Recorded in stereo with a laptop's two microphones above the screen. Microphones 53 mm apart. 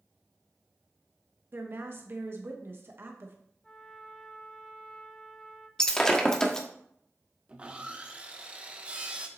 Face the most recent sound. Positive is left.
turn(degrees=-20)  # may be behind; listen again after turning